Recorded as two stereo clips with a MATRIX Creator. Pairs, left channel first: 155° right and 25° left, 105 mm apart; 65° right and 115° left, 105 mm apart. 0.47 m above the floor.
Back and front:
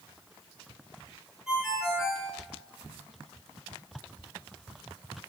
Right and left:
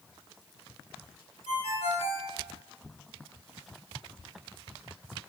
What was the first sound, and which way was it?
A ringtone, 65° right.